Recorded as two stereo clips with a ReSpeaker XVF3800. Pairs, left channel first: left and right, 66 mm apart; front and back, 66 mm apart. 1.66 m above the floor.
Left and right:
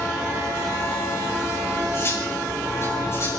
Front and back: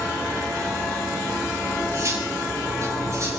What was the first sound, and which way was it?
Cutlery clinking, 140° left.